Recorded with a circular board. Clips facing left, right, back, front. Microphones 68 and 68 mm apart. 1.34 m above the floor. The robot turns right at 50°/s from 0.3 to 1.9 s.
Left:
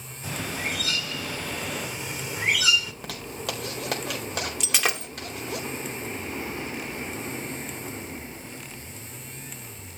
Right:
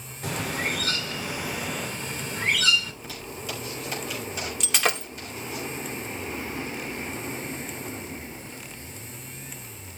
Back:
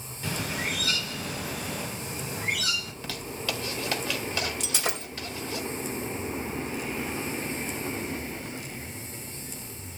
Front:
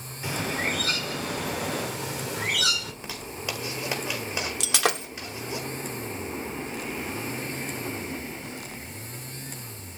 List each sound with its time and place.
0.2 s a bird: 70° right, 2.5 m; by 2.9 s 10° left, 2.5 m
2.9 s a zipper: 75° left, 4 m
4.6 s breaking glass: 5° left, 2.5 m